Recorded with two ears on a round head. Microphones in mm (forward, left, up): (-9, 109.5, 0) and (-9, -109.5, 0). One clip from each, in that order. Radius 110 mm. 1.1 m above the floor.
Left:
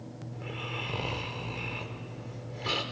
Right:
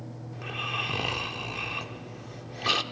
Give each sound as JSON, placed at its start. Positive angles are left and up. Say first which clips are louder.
{"t": 0.3, "sound": "snoring", "louder": "right 6 dB", "side_deg": -45, "distance_m": 1.0}